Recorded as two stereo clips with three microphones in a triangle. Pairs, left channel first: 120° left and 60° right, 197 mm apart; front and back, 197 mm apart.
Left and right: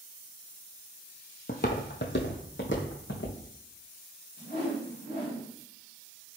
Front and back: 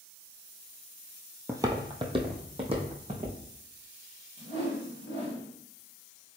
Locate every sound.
1.5 s footsteps: 110° left, 0.5 m; by 3.4 s 120° left, 1.6 m
4.4 s a whoosh: 135° left, 2.0 m